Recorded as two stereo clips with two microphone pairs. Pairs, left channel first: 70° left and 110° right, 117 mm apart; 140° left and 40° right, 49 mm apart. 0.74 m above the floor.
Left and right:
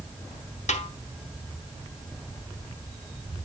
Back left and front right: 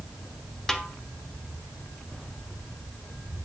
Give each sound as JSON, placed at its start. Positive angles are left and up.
{"t": 0.7, "sound": "a snare drum", "azimuth_deg": 60, "distance_m": 1.0}